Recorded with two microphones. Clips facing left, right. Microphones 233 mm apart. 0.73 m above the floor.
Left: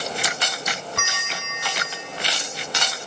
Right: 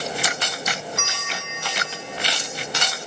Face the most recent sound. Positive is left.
turn(degrees=60)  # may be behind; listen again after turning